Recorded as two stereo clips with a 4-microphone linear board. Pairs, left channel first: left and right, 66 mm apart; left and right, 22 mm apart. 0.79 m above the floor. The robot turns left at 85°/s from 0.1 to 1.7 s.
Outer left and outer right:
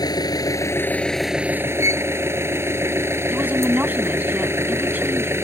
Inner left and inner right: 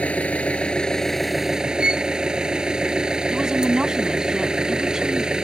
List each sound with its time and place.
0.0 s an engine running: 95° left; by 5.4 s 40° right
1.8 s a violin: 45° right (ahead or behind)
3.3 s a woman speaking: 25° right (ahead or behind)